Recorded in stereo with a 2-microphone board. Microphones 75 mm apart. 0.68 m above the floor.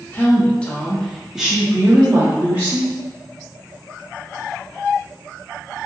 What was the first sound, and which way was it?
A woman speaking, 20° left (ahead or behind).